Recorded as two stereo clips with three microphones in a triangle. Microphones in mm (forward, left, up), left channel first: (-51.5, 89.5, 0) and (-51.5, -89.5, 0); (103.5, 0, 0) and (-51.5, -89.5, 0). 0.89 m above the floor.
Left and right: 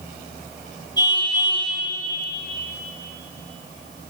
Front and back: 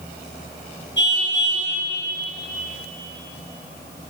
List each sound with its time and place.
1.0 s a car horn: 20° left, 8.5 m